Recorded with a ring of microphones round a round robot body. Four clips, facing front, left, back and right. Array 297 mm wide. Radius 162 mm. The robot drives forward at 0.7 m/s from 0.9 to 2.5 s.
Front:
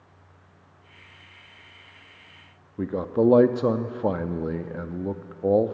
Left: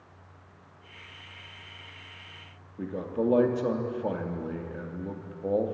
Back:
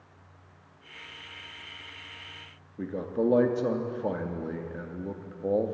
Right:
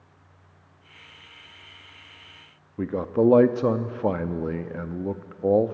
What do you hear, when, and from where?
2.8 s a man speaking: 50° right, 0.7 m